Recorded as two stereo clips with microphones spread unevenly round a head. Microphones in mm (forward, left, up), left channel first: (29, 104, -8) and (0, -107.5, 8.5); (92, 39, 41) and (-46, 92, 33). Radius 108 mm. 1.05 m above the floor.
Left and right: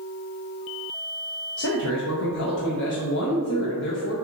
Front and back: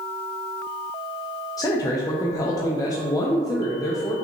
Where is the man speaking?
50° left, 0.6 m.